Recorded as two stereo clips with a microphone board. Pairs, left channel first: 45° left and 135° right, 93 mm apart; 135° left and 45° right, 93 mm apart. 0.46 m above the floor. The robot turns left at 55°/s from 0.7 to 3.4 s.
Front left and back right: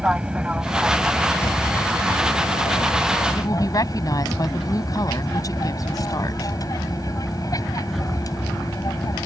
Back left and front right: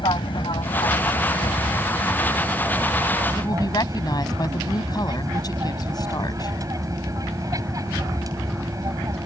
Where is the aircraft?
150° left; by 9.3 s straight ahead.